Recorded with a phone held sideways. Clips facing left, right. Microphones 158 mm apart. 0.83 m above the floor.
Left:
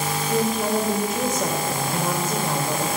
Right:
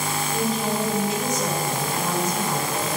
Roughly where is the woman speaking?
Left.